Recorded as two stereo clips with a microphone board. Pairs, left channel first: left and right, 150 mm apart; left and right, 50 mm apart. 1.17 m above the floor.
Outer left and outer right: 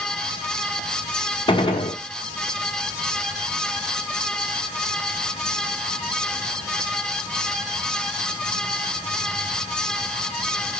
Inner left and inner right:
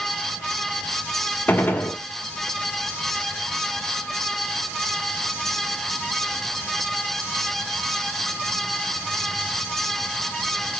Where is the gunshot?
35° left (ahead or behind), 1.4 m.